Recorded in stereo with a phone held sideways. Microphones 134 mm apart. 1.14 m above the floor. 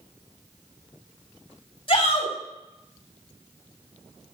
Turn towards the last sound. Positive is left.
turn(degrees=45)  # may be behind; listen again after turning